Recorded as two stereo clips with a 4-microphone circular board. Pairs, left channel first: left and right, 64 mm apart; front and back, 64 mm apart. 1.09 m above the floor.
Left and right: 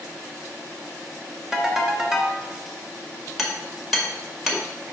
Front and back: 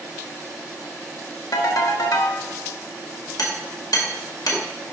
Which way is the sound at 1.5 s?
5° right.